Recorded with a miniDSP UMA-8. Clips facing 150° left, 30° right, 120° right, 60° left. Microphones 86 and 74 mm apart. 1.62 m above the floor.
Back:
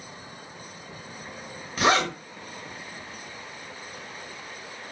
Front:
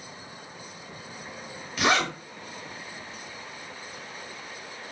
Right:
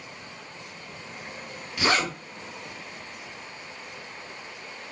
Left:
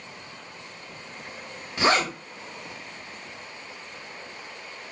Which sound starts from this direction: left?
A zipper, at 1.8 s.